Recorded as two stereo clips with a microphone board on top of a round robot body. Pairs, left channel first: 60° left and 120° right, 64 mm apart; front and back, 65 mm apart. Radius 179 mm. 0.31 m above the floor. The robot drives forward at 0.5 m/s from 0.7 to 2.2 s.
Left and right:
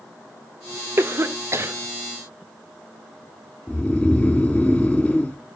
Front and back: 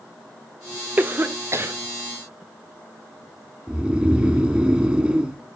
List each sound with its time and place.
1.0 s a cough: 135° right, 1.1 m; by 1.8 s 150° right, 1.4 m
3.7 s snoring: 120° left, 1.4 m